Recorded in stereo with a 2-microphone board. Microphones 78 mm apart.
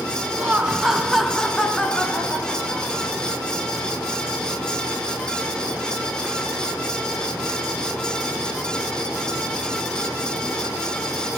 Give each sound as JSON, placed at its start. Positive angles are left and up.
{"t": 0.4, "sound": "laughter", "side_deg": -20, "distance_m": 1.1}